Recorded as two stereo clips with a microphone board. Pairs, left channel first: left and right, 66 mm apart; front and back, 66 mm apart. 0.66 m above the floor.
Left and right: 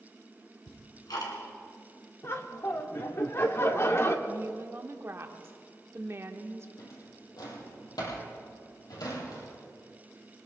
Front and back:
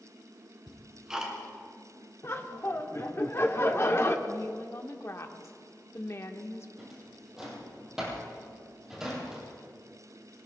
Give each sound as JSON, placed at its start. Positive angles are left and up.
{"t": 0.7, "sound": "ticking", "azimuth_deg": 100, "distance_m": 3.0}
{"t": 2.2, "sound": "laughter", "azimuth_deg": 45, "distance_m": 1.4}
{"t": 4.3, "sound": "a woman speaking", "azimuth_deg": -45, "distance_m": 1.2}
{"t": 6.8, "sound": "a drawer", "azimuth_deg": 100, "distance_m": 5.0}